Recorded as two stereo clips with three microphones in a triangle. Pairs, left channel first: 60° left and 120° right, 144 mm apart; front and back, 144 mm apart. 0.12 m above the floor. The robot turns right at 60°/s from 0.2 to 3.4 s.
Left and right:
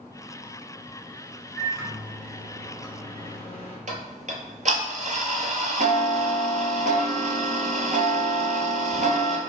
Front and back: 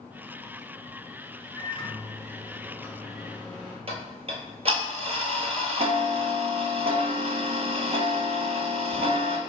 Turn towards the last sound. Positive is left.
turn(degrees=-140)